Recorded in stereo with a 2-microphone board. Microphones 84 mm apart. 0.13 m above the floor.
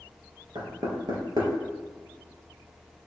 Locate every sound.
0.6 s knocking: 55° right (ahead or behind), 2.5 m